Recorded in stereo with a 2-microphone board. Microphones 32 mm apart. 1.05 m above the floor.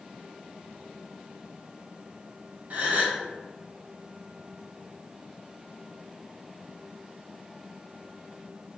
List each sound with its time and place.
2.7 s a gasp: 55° right (ahead or behind), 0.8 m